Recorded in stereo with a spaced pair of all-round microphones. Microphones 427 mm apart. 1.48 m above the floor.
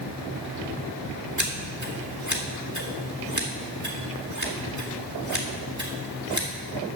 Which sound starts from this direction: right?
Scissors, at 1.4 s.